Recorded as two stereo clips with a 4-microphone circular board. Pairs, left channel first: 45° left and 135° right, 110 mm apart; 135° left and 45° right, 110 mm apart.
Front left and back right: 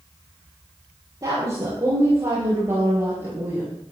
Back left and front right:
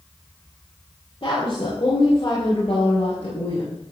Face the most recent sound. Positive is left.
turn(degrees=155)